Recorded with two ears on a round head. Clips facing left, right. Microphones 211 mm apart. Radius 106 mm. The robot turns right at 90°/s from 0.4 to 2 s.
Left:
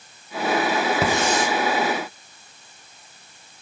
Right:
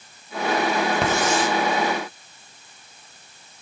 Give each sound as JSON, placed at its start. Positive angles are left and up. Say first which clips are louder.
{"t": 1.0, "sound": "a hiss", "louder": "even", "side_deg": 5, "distance_m": 0.9}